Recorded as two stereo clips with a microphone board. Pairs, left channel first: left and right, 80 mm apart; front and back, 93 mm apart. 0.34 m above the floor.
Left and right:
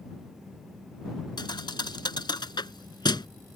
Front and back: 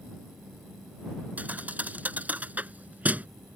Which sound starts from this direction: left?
A thud, at 1.4 s.